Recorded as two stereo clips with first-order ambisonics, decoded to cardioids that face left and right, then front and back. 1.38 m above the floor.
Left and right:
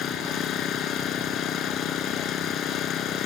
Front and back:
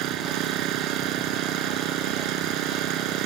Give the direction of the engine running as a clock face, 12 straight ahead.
7 o'clock.